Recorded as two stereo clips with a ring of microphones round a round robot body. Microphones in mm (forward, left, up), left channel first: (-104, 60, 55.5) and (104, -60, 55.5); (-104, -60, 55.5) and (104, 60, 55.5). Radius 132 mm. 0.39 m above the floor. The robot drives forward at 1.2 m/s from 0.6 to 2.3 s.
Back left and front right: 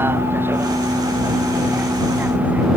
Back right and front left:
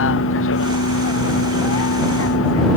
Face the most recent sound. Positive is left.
turn(degrees=-115)